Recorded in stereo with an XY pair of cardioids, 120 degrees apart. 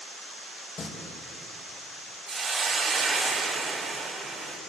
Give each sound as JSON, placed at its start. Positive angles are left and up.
{"t": 0.8, "sound": "singing", "azimuth_deg": 35, "distance_m": 5.0}
{"t": 2.3, "sound": "a hiss", "azimuth_deg": -30, "distance_m": 8.5}